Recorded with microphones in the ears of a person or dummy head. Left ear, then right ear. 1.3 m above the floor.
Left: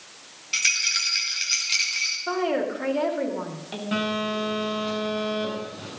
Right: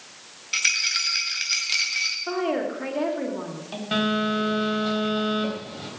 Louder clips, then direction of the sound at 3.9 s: Right 3 dB; 30° right (ahead or behind).